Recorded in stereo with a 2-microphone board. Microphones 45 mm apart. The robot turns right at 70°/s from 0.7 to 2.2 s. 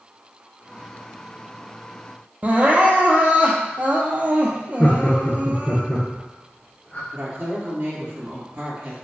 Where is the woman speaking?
45° right (ahead or behind), 1.9 m.